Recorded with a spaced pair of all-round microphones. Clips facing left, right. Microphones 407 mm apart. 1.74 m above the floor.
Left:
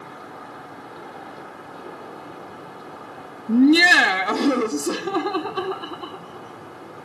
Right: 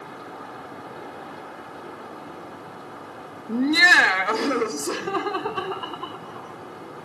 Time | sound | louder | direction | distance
3.5 | laughter | left 8 dB | 45° left (ahead or behind) | 0.6 m